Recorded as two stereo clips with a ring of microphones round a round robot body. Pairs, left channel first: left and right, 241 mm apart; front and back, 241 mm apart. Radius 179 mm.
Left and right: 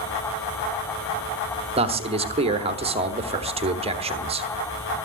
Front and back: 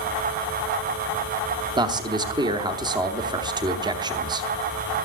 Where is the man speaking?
125° right, 1.0 m.